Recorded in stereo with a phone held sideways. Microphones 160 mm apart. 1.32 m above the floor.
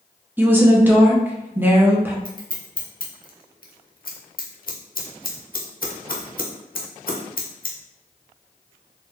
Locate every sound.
0.4 s a woman speaking: 10° right (ahead or behind), 0.8 m
2.2 s scissors: 65° left (ahead or behind), 0.8 m